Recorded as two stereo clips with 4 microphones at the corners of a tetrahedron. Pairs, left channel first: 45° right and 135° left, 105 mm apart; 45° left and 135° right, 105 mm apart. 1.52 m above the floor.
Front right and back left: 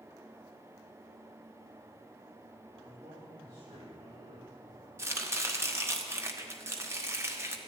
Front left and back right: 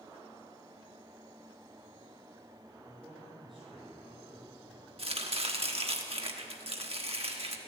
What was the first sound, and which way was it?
A man speaking, 135° left.